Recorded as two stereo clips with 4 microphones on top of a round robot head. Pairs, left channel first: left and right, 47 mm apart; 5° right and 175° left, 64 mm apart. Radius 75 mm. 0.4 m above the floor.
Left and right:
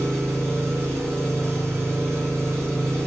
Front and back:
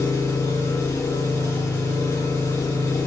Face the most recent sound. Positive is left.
turn(degrees=-55)